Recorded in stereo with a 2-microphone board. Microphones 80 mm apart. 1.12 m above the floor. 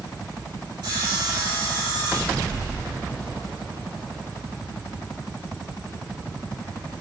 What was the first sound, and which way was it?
Sawing, 60° right (ahead or behind).